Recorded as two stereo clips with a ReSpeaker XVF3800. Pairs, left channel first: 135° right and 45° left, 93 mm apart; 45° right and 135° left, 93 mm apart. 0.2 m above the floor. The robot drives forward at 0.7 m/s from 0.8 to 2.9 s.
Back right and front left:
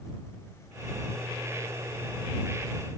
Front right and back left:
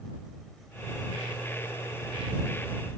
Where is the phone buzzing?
No phone buzzing in this recording.